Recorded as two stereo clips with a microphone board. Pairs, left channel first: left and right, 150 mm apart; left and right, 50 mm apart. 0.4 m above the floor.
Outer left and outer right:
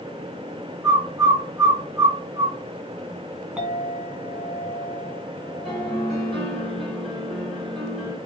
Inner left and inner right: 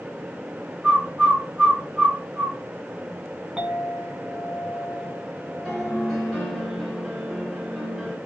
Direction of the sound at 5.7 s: Centre (ahead or behind).